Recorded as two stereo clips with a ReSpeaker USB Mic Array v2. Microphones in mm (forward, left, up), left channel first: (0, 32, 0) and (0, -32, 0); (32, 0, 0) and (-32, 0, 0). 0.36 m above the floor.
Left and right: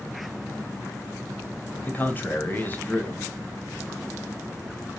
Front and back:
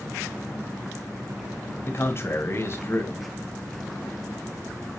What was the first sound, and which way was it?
A man speaking, 35° left.